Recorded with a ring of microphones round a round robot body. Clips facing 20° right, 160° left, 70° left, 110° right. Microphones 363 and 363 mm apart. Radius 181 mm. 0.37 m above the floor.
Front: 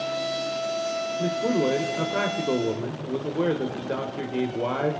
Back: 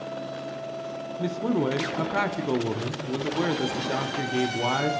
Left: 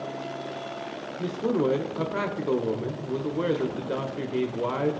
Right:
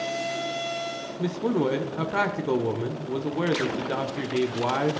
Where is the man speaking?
165° right, 0.9 m.